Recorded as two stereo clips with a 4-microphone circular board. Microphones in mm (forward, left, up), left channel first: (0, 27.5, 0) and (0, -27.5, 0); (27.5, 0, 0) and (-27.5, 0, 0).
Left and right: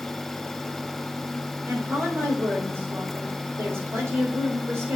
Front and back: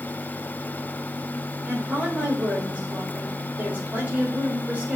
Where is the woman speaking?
120° right, 4.5 m.